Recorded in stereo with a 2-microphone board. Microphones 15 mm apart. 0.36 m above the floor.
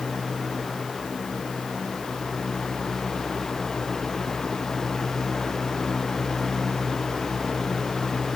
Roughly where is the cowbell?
I don't hear a cowbell.